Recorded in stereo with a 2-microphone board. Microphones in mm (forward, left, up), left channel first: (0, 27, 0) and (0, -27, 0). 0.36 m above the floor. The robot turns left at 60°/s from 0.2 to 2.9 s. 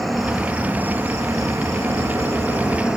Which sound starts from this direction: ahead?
An insect, at 0.0 s.